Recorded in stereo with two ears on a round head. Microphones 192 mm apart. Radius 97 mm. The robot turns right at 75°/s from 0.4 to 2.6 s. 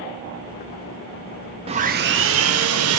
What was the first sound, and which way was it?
Sawing, 150° right.